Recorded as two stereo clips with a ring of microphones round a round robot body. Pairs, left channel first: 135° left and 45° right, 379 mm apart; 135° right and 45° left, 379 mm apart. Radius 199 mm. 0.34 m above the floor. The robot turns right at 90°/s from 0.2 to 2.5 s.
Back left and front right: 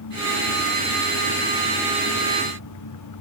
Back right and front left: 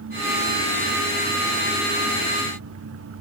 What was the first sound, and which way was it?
Only background noise.